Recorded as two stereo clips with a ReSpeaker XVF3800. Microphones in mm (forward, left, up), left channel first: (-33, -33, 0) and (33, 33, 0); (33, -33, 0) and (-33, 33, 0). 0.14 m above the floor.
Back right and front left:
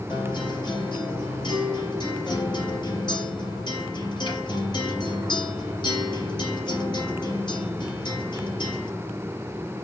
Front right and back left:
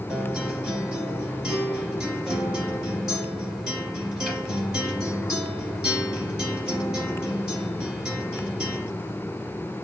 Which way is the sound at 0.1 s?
145° right.